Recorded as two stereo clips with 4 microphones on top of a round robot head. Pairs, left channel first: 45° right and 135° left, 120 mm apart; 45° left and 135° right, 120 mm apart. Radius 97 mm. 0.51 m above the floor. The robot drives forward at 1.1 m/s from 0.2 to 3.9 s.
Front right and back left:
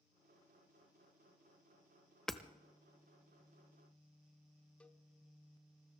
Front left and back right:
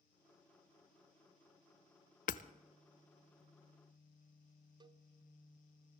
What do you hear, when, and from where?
2.3 s hammering: 40° left, 0.7 m; by 2.4 s 55° left, 0.5 m
4.8 s a cowbell: 120° right, 0.8 m